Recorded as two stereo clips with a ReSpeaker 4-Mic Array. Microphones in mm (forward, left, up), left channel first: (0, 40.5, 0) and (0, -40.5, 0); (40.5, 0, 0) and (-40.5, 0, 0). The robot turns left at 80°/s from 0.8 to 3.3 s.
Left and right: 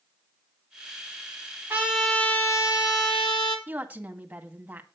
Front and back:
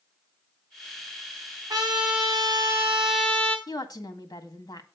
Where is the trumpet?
150° right, 3 m; by 3.6 s 80° left, 3 m.